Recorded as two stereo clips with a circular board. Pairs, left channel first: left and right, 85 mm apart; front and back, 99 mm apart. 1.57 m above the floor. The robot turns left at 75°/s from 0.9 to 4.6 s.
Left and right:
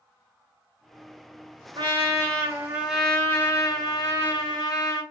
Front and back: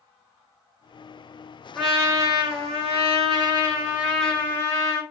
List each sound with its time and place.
1.8 s a trumpet: 85° right, 1.3 m; by 5.0 s 60° left, 1.3 m